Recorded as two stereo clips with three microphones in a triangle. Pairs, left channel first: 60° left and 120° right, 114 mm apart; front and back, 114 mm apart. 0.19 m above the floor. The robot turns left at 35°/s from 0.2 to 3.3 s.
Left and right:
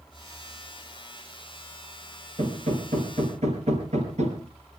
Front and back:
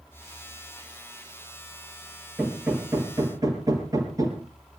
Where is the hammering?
90° right, 4.5 m; by 4.5 s 125° right, 4.5 m.